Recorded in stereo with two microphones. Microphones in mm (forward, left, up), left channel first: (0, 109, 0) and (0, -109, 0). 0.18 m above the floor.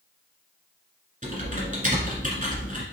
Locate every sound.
1.2 s typing on a keyboard: 40° right (ahead or behind), 1.6 m